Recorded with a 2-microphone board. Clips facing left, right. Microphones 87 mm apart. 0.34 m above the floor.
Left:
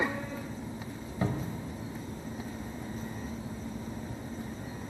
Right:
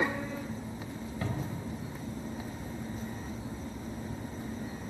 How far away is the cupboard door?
About 0.7 m.